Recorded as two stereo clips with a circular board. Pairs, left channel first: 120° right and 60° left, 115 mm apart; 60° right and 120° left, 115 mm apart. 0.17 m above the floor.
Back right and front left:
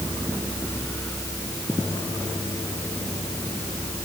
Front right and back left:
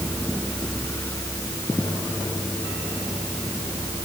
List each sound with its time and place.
Only background noise.